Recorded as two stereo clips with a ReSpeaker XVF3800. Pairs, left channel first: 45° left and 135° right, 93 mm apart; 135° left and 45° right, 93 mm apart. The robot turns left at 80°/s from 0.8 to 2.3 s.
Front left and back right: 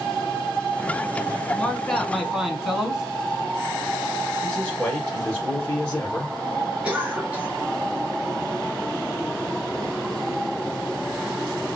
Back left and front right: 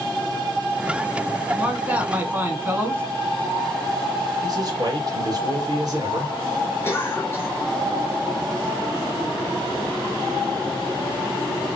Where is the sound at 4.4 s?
30° right, 2.5 m.